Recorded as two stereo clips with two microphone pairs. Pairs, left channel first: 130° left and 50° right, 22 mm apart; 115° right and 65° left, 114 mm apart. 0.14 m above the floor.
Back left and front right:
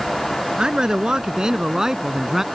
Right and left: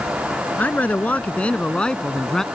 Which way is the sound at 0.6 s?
50° right.